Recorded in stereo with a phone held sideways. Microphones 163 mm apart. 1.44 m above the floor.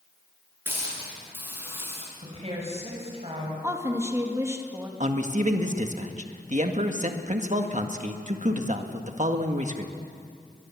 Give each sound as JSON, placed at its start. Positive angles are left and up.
{"t": 0.7, "sound": "a hiss", "side_deg": -15, "distance_m": 9.5}
{"t": 2.2, "sound": "a woman speaking", "side_deg": -40, "distance_m": 7.0}
{"t": 3.6, "sound": "a woman speaking", "side_deg": -15, "distance_m": 2.5}
{"t": 5.0, "sound": "a man speaking", "side_deg": -50, "distance_m": 1.8}